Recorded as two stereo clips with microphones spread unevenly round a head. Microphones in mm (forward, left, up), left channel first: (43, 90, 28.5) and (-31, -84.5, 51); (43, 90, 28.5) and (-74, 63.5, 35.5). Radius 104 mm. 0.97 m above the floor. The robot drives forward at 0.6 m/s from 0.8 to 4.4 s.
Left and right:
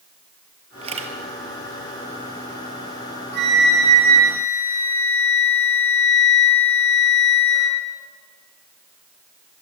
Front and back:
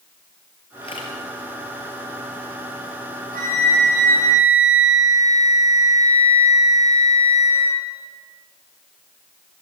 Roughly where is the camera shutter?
Ahead right.